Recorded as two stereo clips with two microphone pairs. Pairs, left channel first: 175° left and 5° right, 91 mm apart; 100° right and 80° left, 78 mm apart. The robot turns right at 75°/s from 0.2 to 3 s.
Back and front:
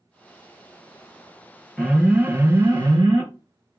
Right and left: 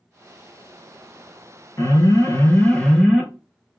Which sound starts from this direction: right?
An alarm, at 1.8 s.